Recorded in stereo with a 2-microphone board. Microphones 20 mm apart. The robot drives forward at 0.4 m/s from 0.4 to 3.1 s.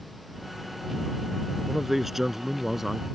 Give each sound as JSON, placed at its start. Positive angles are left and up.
{"t": 1.7, "sound": "a man speaking", "side_deg": -15}